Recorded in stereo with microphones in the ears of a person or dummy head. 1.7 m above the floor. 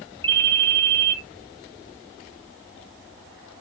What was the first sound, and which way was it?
A ringtone, 10° left (ahead or behind).